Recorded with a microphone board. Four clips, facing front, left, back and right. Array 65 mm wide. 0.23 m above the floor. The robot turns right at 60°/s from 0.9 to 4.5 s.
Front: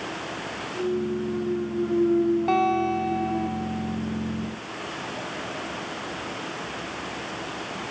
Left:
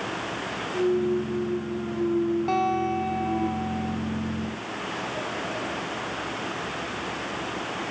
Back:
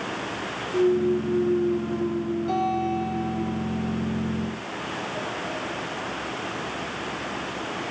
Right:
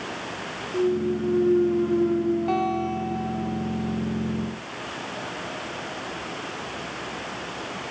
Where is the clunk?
135° right, 4 m; by 3.5 s 20° left, 4 m.